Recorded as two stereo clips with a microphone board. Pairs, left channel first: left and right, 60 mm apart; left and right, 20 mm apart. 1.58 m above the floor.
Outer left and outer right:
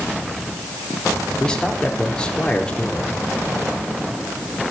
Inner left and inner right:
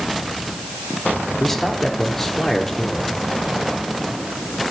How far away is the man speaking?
About 4 m.